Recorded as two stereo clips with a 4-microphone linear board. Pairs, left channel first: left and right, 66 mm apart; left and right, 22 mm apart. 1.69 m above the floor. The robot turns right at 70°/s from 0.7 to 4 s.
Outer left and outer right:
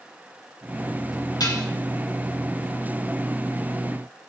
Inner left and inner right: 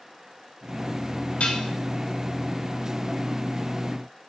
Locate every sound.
1.4 s dishes clattering: 75° left (ahead or behind), 2.5 m; by 1.7 s 60° left (ahead or behind), 2.5 m